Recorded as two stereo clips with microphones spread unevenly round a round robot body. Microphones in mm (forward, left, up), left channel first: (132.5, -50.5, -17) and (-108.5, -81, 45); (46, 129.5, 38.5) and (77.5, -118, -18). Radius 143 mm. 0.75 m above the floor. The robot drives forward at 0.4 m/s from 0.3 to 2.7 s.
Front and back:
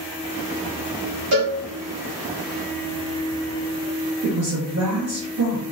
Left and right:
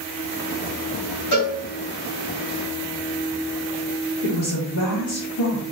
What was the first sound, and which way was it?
A cowbell, 145° left.